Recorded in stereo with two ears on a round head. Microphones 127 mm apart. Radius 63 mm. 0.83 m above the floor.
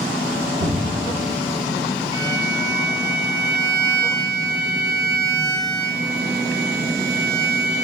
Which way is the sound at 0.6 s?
45° left (ahead or behind).